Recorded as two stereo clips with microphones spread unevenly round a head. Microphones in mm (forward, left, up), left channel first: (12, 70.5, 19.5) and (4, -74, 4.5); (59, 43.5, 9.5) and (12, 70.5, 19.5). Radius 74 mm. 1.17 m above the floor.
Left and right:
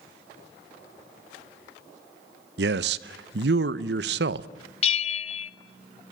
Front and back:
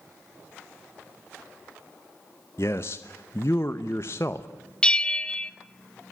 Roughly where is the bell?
Ahead left.